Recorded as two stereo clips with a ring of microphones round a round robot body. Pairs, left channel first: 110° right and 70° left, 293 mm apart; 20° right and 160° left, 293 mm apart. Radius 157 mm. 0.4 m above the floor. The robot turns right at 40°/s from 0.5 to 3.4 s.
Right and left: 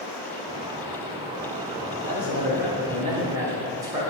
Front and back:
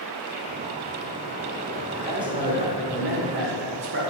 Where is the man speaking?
85° left, 0.9 m; by 4.0 s 140° left, 0.9 m.